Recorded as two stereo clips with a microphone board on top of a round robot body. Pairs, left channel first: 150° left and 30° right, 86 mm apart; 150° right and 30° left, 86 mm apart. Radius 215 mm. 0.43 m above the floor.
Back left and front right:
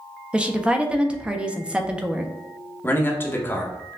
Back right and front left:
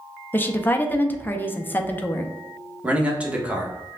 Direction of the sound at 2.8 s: 100° left.